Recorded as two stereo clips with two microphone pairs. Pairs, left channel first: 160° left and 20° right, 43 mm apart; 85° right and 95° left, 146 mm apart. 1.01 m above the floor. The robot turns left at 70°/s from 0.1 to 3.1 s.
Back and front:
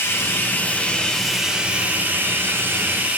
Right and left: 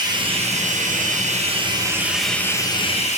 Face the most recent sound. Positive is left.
turn(degrees=-55)